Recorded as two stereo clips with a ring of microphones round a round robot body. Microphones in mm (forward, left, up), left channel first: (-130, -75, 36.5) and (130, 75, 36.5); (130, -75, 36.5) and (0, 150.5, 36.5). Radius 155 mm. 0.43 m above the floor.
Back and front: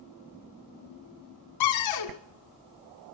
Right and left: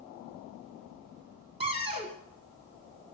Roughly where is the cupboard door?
Behind.